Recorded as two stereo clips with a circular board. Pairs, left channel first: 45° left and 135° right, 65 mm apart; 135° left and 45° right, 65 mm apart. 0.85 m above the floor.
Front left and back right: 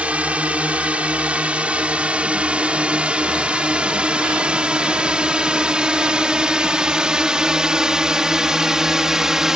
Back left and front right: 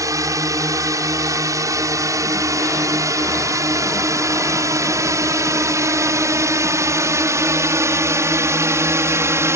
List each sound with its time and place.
0.0 s a drone: 65° right; by 9.6 s 55° right